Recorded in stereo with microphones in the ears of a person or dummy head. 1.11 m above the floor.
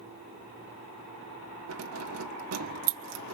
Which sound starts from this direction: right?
Keys jangling, at 1.7 s.